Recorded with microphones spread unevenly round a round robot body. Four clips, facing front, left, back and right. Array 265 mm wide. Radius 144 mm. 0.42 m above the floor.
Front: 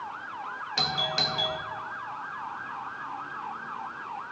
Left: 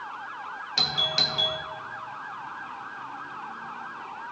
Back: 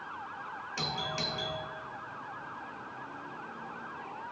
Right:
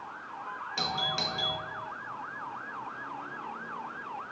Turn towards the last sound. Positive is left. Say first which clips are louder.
# left 1 dB, front 5 dB
turn(degrees=35)